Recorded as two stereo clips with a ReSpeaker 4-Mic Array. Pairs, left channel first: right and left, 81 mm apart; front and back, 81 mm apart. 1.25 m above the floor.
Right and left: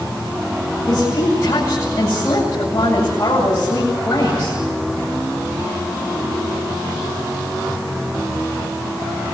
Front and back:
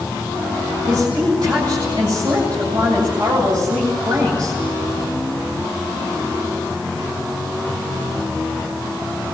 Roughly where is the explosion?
I don't hear an explosion.